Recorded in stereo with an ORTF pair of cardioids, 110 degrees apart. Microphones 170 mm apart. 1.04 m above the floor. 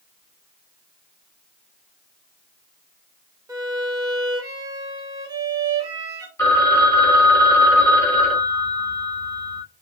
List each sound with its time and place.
3.5 s a violin: 20° right, 1.3 m
6.4 s a phone ringing: 15° left, 2 m